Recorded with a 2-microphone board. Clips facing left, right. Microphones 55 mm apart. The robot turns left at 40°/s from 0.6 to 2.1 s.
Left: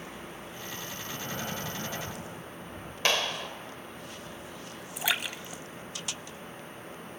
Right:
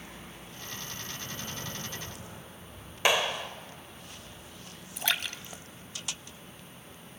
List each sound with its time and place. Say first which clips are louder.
1.0 s breathing: left 4 dB; 125° left, 2 m; by 3.0 s 80° left, 2 m
3.0 s a clap: right 2 dB; 15° right (ahead or behind), 0.9 m
5.0 s a splash: left 1 dB; 10° left (ahead or behind), 0.6 m